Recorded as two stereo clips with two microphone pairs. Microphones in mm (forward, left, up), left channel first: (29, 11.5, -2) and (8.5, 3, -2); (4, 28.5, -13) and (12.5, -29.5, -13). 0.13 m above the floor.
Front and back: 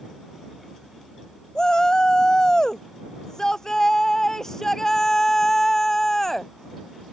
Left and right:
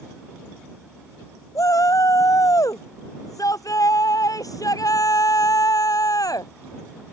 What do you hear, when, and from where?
1.6 s a shout: 80° left; by 6.5 s 95° left